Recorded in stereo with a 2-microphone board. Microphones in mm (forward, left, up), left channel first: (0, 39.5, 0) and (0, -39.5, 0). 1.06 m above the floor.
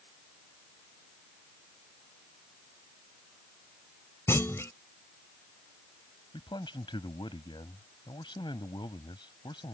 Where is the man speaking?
85° left.